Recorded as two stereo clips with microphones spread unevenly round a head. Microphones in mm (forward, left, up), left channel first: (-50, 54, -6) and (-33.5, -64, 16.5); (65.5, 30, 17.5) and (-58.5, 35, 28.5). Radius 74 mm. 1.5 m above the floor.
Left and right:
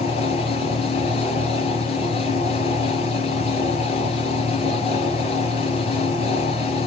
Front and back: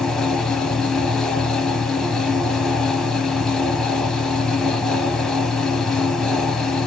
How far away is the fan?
About 1.2 m.